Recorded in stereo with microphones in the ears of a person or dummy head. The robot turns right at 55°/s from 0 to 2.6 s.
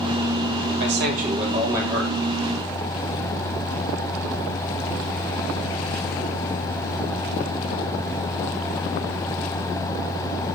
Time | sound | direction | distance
0.8 | a man speaking | 70° right | 3 m